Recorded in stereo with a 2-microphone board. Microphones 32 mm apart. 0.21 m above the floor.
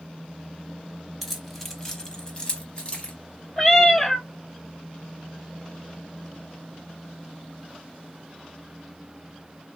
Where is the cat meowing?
15° left (ahead or behind), 0.6 m.